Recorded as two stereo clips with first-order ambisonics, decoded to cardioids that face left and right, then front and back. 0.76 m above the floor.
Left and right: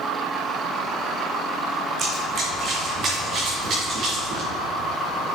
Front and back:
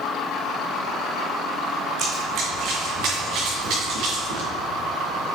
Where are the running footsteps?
140° right, 2.5 m; by 4.5 s 145° right, 5.5 m.